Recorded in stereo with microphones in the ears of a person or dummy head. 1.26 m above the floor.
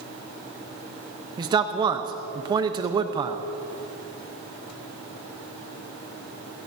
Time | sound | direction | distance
1.4 | a man speaking | 25° right (ahead or behind) | 0.9 m